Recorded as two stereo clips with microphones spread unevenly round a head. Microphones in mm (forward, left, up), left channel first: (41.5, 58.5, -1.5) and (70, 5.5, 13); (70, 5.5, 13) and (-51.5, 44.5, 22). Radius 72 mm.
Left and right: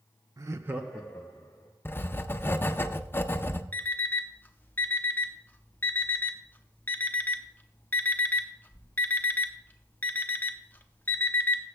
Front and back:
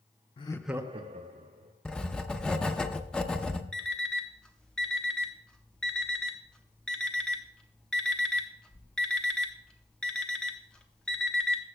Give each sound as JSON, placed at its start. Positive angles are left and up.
{"t": 0.4, "sound": "laughter", "azimuth_deg": -40, "distance_m": 0.6}
{"t": 1.9, "sound": "writing", "azimuth_deg": 65, "distance_m": 0.6}
{"t": 3.7, "sound": "an alarm clock", "azimuth_deg": 65, "distance_m": 0.6}